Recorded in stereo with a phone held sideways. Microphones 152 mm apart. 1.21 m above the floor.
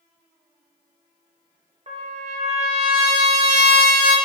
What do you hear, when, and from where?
1.9 s a trumpet: 45° right (ahead or behind), 0.8 m